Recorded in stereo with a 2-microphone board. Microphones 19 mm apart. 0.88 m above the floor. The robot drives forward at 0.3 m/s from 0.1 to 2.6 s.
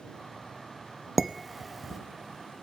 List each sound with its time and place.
1.2 s dishes clattering: 10° right (ahead or behind), 0.5 m; by 2.0 s 5° right (ahead or behind), 0.8 m